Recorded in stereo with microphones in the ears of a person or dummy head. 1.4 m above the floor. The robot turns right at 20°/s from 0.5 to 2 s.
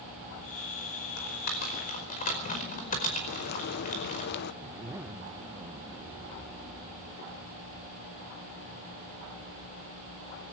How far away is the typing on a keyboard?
About 5 m.